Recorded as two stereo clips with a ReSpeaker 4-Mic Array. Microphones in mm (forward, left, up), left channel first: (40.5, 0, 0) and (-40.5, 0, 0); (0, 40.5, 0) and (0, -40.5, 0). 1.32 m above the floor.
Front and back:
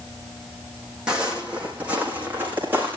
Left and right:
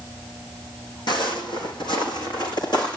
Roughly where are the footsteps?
Left.